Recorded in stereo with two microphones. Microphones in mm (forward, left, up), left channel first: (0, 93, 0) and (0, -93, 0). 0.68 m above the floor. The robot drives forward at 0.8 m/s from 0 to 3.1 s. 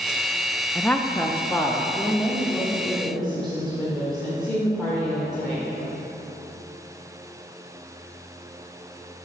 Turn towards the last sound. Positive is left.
turn(degrees=5)  # may be behind; listen again after turning